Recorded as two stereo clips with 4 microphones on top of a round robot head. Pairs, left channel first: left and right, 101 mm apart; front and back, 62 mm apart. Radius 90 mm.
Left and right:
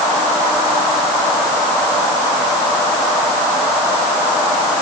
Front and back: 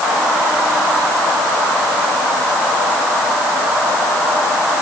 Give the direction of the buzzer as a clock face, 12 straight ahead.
No buzzer in this recording.